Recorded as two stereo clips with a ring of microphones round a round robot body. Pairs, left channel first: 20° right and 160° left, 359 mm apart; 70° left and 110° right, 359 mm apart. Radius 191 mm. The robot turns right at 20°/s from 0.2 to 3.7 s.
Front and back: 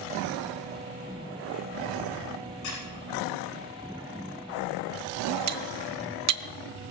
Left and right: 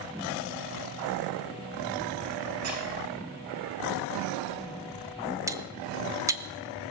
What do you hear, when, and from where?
2.6 s a squeak: 65° right, 7 m; by 2.8 s 60° right, 7 m
5.5 s cutlery clinking: 170° left, 0.8 m